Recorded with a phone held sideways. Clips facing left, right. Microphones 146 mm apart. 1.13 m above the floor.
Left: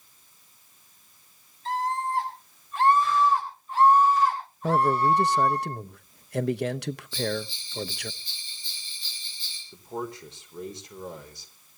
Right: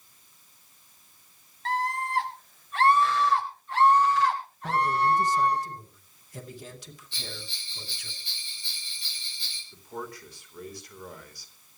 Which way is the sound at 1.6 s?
75° right (ahead or behind).